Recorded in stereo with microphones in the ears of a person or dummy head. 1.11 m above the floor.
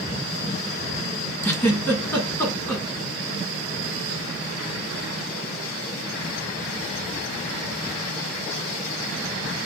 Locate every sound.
1.4 s a giggle: 10° left (ahead or behind), 1.5 m